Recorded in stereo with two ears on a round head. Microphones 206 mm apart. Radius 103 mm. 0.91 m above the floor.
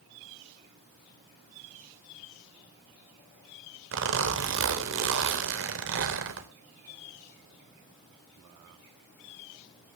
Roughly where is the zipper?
Right.